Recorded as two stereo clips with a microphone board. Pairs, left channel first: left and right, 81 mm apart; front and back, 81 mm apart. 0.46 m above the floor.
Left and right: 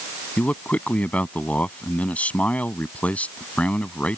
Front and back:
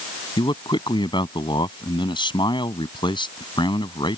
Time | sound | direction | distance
0.4 | a man speaking | 15° left | ?